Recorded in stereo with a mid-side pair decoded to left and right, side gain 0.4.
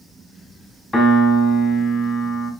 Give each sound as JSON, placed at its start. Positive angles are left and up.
{"t": 0.9, "sound": "a piano", "azimuth_deg": 25, "distance_m": 3.0}